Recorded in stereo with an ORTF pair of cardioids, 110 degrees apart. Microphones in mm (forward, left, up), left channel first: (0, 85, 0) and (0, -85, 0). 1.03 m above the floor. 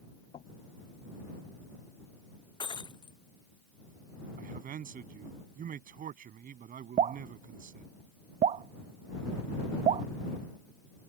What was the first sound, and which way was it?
Knocking, 40° left.